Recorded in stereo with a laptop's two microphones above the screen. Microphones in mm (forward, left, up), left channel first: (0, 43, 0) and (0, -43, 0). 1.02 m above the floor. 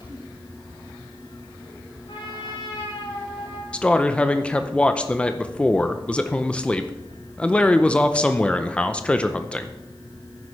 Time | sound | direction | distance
0.0 | a fan | 70° left (ahead or behind) | 6 m
2.1 | a trumpet | 70° left (ahead or behind) | 4.5 m
3.7 | a man speaking | 15° left (ahead or behind) | 0.6 m